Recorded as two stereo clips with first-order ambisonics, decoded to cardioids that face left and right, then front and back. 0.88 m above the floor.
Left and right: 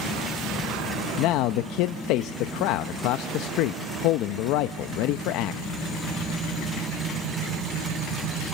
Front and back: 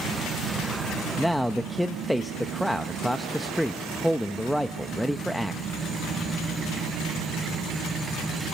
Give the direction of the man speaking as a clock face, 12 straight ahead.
9 o'clock.